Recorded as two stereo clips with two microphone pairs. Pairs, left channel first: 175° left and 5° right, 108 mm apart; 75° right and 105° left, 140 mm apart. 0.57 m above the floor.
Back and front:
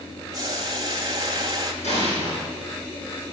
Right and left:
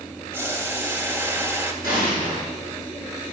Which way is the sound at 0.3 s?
40° left.